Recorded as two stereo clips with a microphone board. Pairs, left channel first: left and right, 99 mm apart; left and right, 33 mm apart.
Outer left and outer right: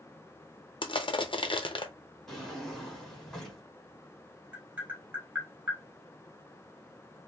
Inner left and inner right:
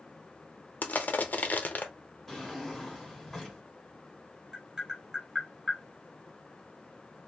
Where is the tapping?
15° right (ahead or behind), 1.7 m.